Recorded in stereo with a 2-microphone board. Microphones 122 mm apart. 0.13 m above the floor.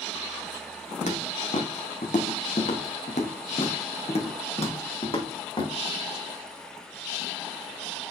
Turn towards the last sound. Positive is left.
turn(degrees=45)  # may be behind; listen again after turning